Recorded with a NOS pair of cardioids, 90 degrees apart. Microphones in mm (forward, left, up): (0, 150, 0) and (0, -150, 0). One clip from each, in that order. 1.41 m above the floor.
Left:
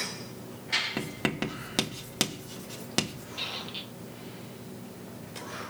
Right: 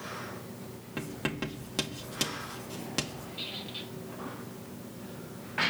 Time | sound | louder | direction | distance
1.0 | writing | left 4 dB | 35° left | 3 m
3.4 | a squeak | left 4 dB | 35° left | 2 m